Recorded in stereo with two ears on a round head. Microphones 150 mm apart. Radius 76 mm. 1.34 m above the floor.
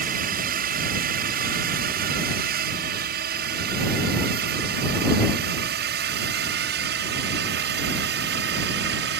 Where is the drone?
55° right (ahead or behind); by 9.2 s 65° right (ahead or behind).